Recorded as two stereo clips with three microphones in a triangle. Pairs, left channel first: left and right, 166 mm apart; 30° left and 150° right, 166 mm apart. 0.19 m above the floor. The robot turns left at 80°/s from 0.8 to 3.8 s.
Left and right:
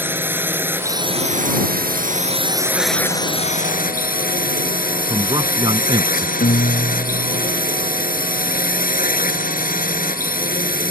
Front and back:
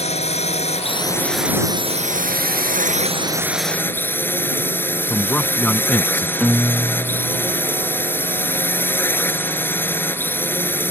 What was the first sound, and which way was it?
A drone, 15° right.